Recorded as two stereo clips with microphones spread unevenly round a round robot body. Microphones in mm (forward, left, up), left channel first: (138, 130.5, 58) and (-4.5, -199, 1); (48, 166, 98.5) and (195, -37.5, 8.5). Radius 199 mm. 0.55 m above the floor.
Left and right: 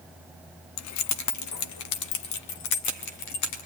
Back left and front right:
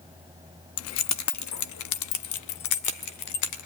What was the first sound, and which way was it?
Keys jangling, 100° left.